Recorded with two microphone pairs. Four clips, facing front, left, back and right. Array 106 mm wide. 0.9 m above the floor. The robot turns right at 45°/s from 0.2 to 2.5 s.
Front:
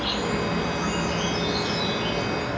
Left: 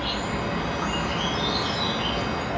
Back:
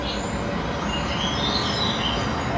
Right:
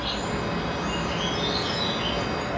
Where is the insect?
65° left, 1.2 m; by 2.6 s 170° left, 1.2 m.